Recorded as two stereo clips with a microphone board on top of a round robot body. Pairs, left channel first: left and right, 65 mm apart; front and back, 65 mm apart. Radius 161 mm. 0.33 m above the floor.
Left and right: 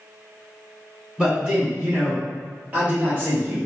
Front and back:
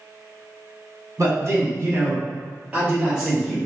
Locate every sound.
1.2 s a man speaking: 165° right, 1.8 m; by 3.6 s 85° right, 1.3 m